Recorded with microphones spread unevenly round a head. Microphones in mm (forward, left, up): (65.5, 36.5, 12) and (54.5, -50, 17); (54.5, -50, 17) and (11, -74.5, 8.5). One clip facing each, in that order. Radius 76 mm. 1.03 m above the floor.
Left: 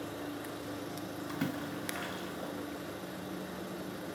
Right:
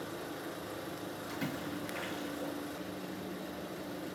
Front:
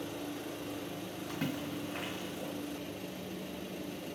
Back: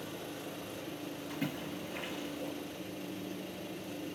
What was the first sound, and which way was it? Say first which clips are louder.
A splash: left 2 dB, front 2 dB; 60° left.